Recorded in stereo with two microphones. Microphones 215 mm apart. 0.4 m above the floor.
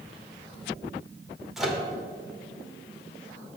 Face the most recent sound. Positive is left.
turn(degrees=0)  # may be behind; listen again after turning